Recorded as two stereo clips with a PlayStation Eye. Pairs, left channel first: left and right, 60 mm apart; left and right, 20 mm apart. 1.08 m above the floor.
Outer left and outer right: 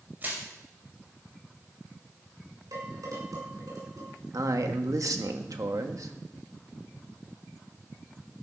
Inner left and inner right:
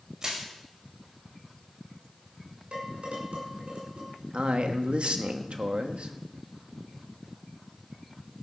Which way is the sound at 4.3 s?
75° right (ahead or behind).